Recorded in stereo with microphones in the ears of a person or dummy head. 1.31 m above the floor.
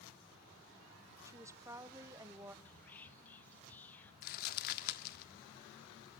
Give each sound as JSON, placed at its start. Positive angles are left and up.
{"t": 1.2, "sound": "a woman speaking", "side_deg": -15, "distance_m": 0.8}
{"t": 2.6, "sound": "whispering", "side_deg": 10, "distance_m": 0.5}
{"t": 4.2, "sound": "crumpling", "side_deg": 50, "distance_m": 1.2}